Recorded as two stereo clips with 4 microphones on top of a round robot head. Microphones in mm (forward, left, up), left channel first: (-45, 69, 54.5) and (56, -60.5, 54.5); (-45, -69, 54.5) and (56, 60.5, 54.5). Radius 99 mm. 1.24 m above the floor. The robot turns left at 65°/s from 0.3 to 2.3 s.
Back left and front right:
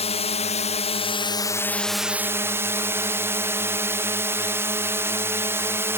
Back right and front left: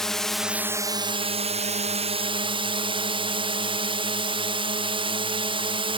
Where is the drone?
145° left; by 6.0 s 15° left.